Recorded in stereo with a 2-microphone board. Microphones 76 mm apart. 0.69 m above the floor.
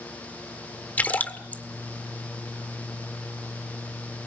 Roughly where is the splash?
Left.